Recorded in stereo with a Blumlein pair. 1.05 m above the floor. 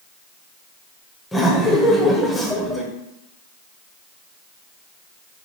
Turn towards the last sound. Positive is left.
turn(degrees=5)